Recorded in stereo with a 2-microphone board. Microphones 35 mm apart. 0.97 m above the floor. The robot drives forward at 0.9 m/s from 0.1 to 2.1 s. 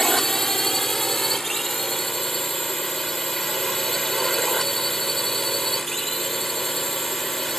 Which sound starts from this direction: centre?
A drone, at 0.0 s.